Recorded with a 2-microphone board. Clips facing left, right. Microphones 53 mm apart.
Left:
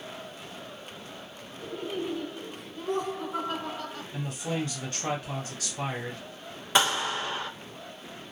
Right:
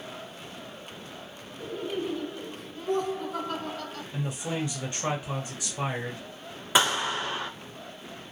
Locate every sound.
1.6 s laughter: 5° left (ahead or behind), 1.5 m; by 4.0 s 15° left (ahead or behind), 1.2 m
4.1 s a man speaking: 20° right (ahead or behind), 1.5 m
6.8 s a clap: 5° right (ahead or behind), 1.4 m